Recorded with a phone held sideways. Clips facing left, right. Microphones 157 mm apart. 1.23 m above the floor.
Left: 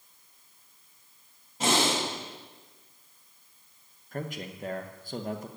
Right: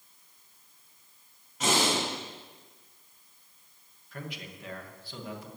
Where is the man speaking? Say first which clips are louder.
Left 6 dB; 45° left (ahead or behind), 1.1 m.